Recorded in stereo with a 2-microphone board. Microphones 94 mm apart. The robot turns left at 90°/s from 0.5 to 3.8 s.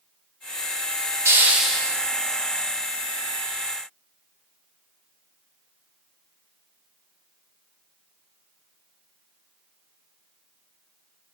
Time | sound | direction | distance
1.2 | a hiss | 140° right | 0.6 m